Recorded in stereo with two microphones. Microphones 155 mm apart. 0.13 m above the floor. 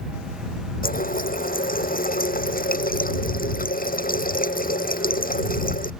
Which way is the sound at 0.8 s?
65° left (ahead or behind).